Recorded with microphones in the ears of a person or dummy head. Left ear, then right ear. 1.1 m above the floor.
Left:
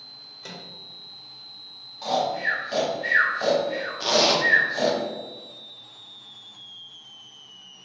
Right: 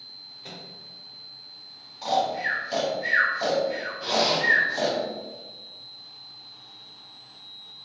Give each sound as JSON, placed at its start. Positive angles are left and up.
{"t": 0.4, "sound": "a microwave", "side_deg": 80, "distance_m": 1.0}
{"t": 2.0, "sound": "snoring", "side_deg": -5, "distance_m": 0.6}
{"t": 4.0, "sound": "a zipper", "side_deg": 80, "distance_m": 0.5}